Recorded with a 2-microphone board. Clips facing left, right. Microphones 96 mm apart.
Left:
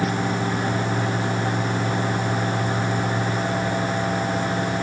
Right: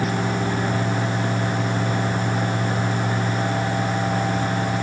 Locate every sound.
Only background noise.